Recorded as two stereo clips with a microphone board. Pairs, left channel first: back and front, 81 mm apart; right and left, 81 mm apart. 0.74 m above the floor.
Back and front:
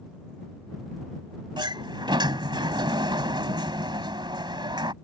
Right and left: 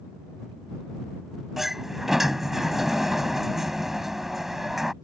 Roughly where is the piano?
I don't hear a piano.